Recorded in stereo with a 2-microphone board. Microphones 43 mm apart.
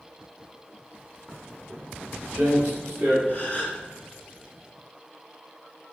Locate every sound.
1.3 s footsteps: 20° right (ahead or behind), 0.9 m; by 3.2 s 55° right (ahead or behind), 2.5 m
3.3 s a gasp: 30° left (ahead or behind), 1.5 m